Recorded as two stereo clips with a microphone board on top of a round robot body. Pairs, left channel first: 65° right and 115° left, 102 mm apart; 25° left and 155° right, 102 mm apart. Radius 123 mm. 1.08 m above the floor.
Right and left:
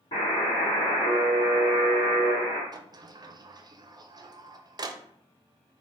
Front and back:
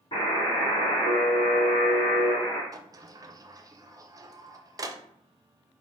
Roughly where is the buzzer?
Ahead right.